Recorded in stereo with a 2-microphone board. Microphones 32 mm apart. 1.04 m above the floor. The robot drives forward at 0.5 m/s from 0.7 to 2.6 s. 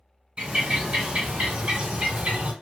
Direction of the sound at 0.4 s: 30° right (ahead or behind).